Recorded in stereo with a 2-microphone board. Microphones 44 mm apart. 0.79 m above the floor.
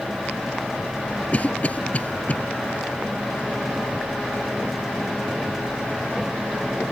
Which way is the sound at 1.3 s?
35° left (ahead or behind).